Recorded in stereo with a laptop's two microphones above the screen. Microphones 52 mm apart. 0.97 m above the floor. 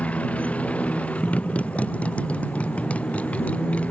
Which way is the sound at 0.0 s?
25° left (ahead or behind).